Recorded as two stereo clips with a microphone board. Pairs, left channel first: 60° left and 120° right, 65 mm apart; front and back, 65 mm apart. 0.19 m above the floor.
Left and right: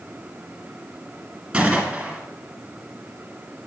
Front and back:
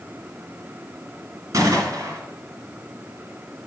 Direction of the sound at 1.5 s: 170° left.